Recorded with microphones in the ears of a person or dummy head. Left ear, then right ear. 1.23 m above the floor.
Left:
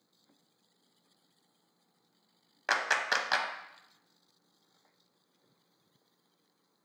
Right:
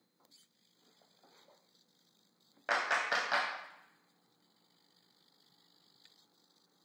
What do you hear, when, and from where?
2.7 s a clap: 20° left (ahead or behind), 0.6 m